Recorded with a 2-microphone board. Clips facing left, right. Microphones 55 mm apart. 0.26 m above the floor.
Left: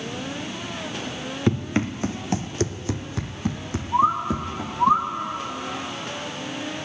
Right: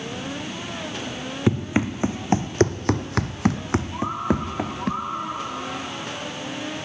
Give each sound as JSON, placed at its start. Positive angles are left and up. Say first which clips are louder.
{"t": 1.5, "sound": "running footsteps", "louder": "right 1 dB", "side_deg": -10, "distance_m": 1.3}
{"t": 3.9, "sound": "a bird", "louder": "left 10 dB", "side_deg": 70, "distance_m": 1.3}